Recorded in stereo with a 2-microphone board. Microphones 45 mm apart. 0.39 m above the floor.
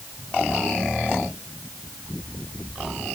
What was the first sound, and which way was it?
Only background noise.